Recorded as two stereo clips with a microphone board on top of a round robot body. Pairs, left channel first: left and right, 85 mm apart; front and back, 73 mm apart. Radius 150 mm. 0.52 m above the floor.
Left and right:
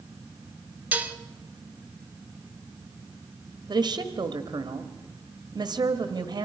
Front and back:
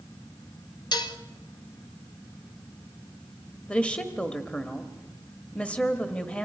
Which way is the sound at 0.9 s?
15° right.